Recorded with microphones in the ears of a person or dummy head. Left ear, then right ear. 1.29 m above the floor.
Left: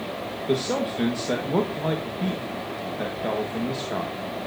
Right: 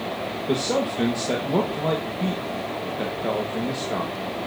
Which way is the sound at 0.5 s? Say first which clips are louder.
Right 1 dB; 5° left (ahead or behind).